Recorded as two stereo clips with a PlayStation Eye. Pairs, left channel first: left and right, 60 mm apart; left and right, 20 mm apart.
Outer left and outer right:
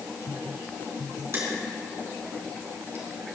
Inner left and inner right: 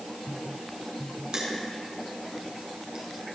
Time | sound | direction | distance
1.3 | crushing | 45° right (ahead or behind) | 3.5 m